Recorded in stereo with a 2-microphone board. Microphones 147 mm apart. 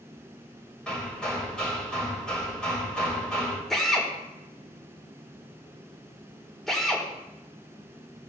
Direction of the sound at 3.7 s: Centre (ahead or behind).